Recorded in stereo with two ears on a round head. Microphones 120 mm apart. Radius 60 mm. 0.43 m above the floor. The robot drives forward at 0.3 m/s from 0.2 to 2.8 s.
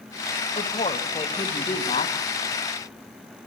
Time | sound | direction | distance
0.6 | a woman speaking | 30° left (ahead or behind) | 2 m